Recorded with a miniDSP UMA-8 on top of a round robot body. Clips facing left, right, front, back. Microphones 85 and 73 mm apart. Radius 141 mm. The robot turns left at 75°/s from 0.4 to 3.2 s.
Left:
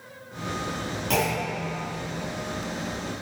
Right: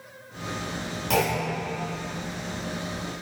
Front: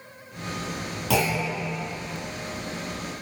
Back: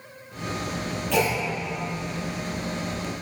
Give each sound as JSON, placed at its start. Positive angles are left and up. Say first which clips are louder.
{"t": 1.1, "sound": "a clunk", "louder": "right 2 dB, even", "azimuth_deg": 0, "distance_m": 2.5}